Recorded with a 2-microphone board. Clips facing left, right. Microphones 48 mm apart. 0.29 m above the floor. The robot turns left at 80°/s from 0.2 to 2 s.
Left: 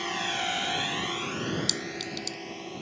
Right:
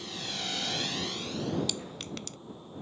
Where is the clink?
15° right (ahead or behind); by 2.4 s 35° right (ahead or behind).